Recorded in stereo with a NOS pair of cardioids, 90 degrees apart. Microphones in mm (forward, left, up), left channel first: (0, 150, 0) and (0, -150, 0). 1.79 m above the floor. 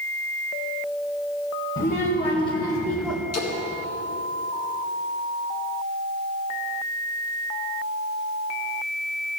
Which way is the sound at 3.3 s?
55° left.